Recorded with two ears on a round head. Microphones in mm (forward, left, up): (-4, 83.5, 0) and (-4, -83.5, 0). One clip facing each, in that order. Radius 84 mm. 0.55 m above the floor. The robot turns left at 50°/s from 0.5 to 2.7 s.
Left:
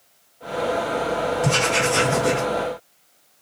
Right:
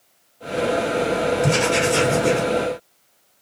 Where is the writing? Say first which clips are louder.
Right 3 dB; 15° right, 1.6 m; by 2.4 s 65° right, 1.6 m.